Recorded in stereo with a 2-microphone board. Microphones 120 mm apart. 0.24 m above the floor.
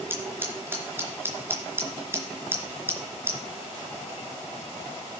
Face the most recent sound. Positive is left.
turn(degrees=-20)  # may be behind; listen again after turning